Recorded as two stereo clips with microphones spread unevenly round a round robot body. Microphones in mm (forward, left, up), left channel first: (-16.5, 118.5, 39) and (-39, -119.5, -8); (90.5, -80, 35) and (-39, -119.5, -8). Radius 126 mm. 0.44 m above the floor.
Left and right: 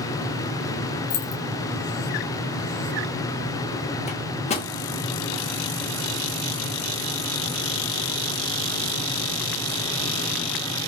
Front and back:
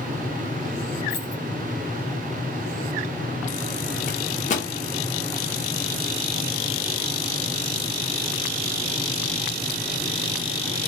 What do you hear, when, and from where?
1.1 s keys jangling: 115° left, 1.2 m
4.1 s a microwave: 20° left, 0.9 m